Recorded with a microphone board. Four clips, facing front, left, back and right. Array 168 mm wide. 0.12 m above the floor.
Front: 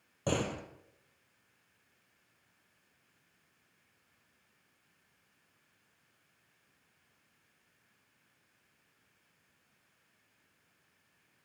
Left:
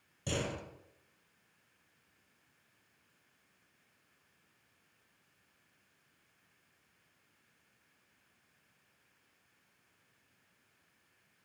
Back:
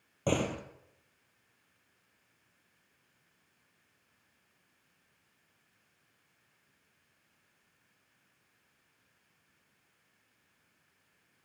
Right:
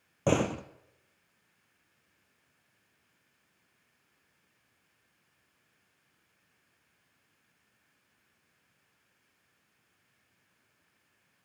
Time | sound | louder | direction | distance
0.3 | a door slam | right 10 dB, back 2 dB | 100° right | 2.5 m